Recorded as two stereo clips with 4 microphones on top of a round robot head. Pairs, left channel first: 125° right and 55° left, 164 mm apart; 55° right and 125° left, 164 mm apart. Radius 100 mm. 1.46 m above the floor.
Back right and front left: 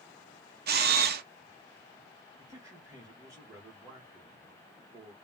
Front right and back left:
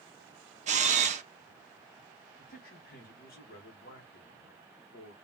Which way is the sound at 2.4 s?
20° right.